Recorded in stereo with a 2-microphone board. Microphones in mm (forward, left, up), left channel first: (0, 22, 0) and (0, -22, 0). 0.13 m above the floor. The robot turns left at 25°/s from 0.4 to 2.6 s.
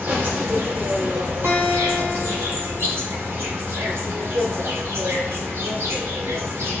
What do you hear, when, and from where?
0.0 s an insect: 60° right, 1.1 m; by 6.8 s 115° right, 1.1 m
1.4 s a guitar: 75° right (ahead or behind), 1.8 m; by 2.9 s 50° right (ahead or behind), 1.8 m